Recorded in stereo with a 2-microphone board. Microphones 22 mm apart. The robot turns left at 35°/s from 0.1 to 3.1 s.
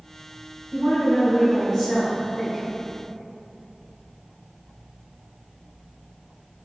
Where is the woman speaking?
15° right (ahead or behind), 1.2 m; by 2.6 s 10° left (ahead or behind), 1.2 m.